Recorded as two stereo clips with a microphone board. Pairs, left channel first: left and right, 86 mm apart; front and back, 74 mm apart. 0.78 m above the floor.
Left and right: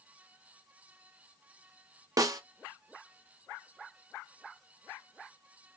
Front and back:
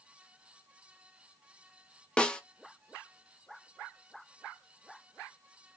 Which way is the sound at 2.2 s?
75° right.